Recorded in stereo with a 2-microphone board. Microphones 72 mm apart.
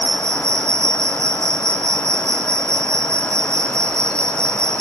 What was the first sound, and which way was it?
An insect, 45° right (ahead or behind).